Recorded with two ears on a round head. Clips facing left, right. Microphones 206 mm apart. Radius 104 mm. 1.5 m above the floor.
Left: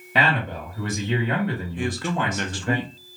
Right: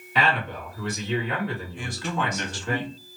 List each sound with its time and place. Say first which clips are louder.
0.1 s a man speaking: left 2 dB; 50° left (ahead or behind), 1.9 m
1.8 s a man speaking: left 4 dB; 50° left (ahead or behind), 0.7 m